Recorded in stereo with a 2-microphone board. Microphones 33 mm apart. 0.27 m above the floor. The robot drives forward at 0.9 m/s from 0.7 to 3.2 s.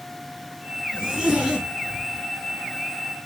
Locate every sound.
0.9 s a zipper: 15° right (ahead or behind), 3.5 m